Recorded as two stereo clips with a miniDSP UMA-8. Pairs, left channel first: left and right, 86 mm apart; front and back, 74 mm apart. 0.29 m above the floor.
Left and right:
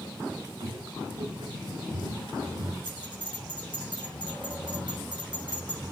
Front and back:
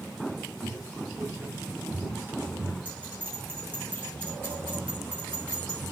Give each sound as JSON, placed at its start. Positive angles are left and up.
{"t": 0.6, "sound": "footsteps", "azimuth_deg": -95, "distance_m": 5.0}
{"t": 2.9, "sound": "a bell", "azimuth_deg": -115, "distance_m": 5.5}